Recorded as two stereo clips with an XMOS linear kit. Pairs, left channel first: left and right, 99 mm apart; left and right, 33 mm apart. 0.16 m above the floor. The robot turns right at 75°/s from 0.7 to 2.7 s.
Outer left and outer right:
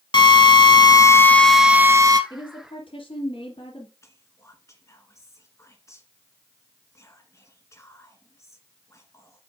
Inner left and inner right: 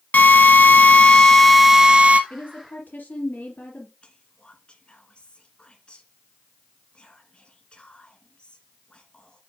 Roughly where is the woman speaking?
Ahead left.